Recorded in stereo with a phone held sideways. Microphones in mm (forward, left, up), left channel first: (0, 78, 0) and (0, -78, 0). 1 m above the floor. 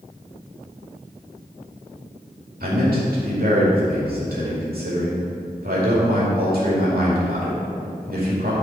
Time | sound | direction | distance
2.6 | a man speaking | 75° right (ahead or behind) | 2.5 m